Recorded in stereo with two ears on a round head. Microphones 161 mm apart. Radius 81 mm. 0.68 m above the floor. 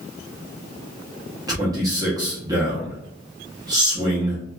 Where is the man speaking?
20° right (ahead or behind), 0.8 m.